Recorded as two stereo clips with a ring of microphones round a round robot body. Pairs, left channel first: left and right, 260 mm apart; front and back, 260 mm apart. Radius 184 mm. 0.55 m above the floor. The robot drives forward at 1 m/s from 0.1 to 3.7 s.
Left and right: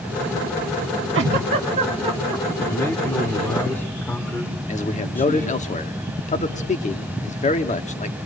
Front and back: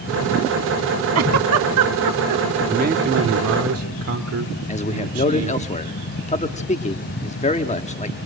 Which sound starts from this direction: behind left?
A man speaking, at 2.7 s.